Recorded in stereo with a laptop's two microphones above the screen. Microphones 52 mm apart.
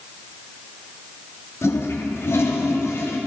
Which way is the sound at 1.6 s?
60° left (ahead or behind).